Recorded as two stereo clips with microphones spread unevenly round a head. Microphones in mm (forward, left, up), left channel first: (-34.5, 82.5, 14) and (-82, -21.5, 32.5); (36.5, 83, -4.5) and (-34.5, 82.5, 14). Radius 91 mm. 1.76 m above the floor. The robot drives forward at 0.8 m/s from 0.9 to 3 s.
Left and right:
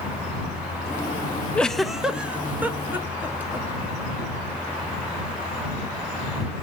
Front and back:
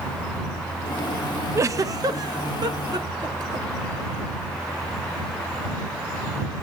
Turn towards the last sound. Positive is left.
turn(degrees=170)